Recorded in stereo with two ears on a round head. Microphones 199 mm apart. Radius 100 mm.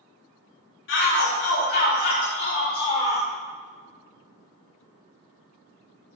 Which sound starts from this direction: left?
A shout, at 0.9 s.